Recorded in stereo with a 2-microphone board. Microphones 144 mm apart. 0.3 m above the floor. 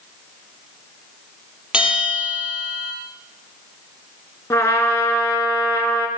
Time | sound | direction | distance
1.7 | a bell | 5° right (ahead or behind) | 4 m
4.5 | a trumpet | 20° left (ahead or behind) | 2 m